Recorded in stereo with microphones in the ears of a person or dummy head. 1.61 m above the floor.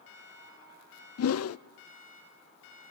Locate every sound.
1.2 s a whoosh: 70° left (ahead or behind), 0.6 m